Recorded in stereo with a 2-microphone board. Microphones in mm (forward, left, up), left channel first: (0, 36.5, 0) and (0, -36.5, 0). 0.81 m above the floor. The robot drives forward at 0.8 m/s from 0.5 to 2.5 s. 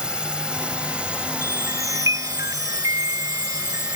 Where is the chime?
50° right (ahead or behind).